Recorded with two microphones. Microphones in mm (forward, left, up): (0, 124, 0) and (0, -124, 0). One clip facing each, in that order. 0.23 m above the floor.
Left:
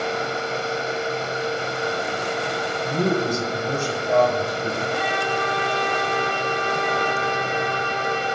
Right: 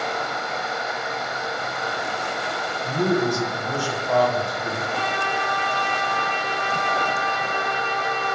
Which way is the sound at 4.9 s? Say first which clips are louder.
Left 3 dB; 15° left (ahead or behind).